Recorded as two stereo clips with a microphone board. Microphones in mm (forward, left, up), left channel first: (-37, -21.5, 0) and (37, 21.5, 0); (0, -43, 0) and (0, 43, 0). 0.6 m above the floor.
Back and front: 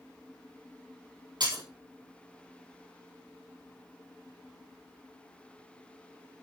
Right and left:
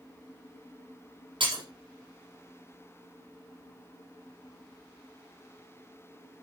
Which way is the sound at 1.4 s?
65° left.